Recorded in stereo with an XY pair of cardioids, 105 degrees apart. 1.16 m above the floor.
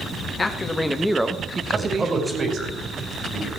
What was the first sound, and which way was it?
A man speaking, 30° left.